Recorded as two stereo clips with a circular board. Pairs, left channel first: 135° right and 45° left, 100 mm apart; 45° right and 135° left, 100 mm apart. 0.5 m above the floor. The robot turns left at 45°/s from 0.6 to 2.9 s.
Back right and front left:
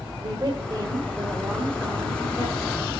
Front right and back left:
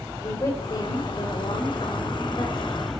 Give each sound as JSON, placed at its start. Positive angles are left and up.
{"t": 0.2, "sound": "a woman speaking", "azimuth_deg": 0, "distance_m": 1.9}